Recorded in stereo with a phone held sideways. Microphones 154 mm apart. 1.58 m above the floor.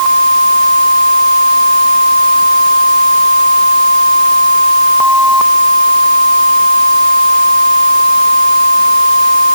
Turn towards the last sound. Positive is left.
No sound to turn to.